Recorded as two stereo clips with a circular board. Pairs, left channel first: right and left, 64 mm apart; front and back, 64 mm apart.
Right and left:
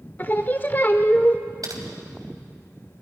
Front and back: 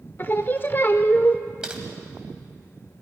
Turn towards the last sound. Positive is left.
turn(degrees=105)